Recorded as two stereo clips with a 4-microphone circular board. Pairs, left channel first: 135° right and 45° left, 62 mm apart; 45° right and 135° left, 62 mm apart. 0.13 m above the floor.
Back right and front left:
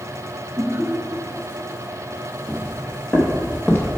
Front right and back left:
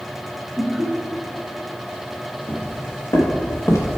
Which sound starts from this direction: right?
Footsteps, at 2.5 s.